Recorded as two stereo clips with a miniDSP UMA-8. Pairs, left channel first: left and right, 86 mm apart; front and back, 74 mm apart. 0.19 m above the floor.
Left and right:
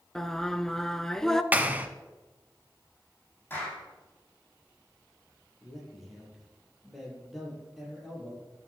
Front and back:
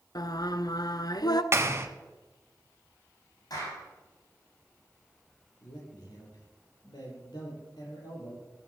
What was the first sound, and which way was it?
Singing, 5° left.